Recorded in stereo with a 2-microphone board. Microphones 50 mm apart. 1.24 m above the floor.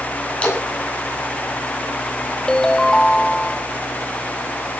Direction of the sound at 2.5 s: 15° left (ahead or behind).